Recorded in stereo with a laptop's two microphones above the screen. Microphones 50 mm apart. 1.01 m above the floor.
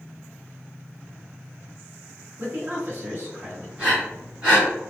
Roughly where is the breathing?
Right.